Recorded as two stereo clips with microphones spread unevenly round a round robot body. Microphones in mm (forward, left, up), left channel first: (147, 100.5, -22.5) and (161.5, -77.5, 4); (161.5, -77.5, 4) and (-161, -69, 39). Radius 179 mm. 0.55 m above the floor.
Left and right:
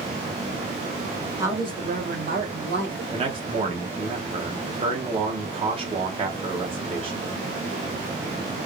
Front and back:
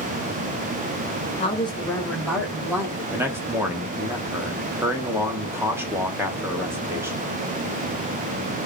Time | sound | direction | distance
1.4 | a woman speaking | 5° right | 0.9 m
3.1 | a man speaking | 95° right | 0.6 m